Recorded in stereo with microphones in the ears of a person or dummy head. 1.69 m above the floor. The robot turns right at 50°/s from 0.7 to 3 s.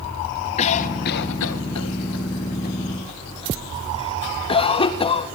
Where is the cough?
40° left (ahead or behind), 2 m; by 5.3 s 25° left (ahead or behind), 2 m.